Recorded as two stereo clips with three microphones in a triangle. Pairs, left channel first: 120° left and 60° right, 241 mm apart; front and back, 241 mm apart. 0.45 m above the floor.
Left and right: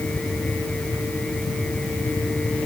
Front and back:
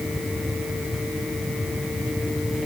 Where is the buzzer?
No buzzer in this recording.